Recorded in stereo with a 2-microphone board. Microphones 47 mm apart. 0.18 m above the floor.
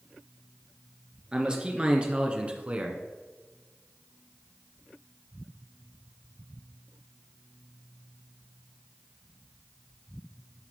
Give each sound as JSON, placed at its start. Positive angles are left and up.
{"t": 1.3, "sound": "a man speaking", "side_deg": -20, "distance_m": 2.5}